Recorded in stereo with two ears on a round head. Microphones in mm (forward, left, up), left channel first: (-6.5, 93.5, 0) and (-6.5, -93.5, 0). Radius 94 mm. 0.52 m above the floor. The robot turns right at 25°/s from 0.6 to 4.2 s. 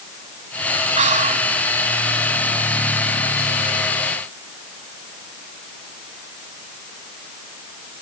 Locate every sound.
1.0 s whispering: 35° right (ahead or behind), 1.0 m